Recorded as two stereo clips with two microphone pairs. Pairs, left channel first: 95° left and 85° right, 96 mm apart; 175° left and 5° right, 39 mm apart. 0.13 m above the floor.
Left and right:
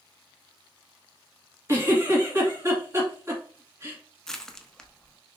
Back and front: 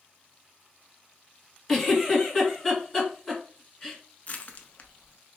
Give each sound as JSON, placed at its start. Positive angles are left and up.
{"t": 1.7, "sound": "a giggle", "azimuth_deg": -105, "distance_m": 1.7}
{"t": 4.3, "sound": "crushing", "azimuth_deg": 170, "distance_m": 0.5}